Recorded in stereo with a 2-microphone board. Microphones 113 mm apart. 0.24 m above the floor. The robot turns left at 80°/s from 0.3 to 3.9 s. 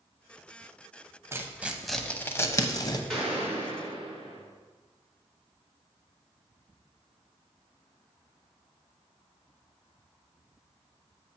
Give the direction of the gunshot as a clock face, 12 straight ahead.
12 o'clock.